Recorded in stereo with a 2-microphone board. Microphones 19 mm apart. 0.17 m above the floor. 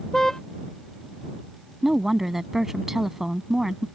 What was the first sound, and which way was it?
A car horn, 20° left (ahead or behind).